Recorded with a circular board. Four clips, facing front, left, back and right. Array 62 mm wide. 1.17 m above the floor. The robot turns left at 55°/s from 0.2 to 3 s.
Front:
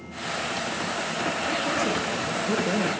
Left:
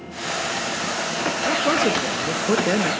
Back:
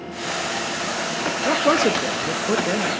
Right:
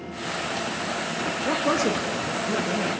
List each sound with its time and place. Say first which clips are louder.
1.4 s a man speaking: left 3 dB, back 11 dB; straight behind, 2 m; by 2.9 s 100° left, 2 m